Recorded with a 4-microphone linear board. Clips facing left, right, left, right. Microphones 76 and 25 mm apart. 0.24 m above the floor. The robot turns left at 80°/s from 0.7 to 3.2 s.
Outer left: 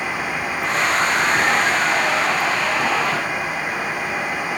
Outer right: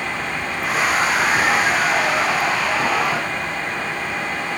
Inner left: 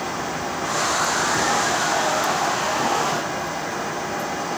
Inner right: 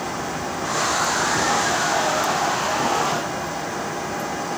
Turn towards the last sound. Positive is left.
No sound to turn to.